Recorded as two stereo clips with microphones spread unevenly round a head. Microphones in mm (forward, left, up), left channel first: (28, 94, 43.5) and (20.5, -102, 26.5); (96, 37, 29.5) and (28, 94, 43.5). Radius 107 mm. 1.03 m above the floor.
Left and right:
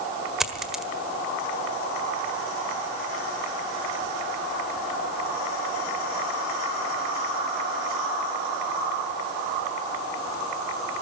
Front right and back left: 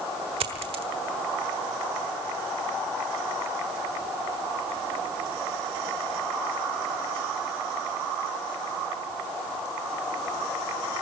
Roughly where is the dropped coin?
Behind.